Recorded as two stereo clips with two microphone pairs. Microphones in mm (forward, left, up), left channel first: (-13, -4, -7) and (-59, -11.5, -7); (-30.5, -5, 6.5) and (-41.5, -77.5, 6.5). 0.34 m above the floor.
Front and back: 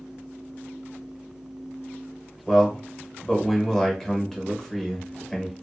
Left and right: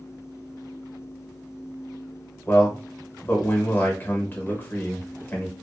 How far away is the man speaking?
About 0.9 m.